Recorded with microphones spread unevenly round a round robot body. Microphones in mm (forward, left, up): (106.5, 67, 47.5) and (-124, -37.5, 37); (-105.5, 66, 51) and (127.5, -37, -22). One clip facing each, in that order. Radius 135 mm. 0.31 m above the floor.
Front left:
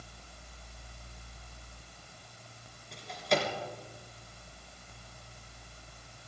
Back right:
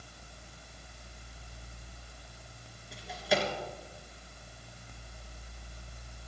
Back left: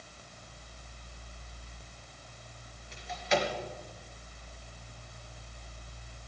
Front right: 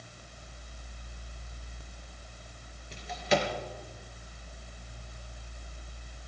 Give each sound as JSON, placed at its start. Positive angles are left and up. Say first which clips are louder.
{"t": 2.9, "sound": "a drawer", "louder": "even, front right 2 dB", "azimuth_deg": -70, "distance_m": 3.5}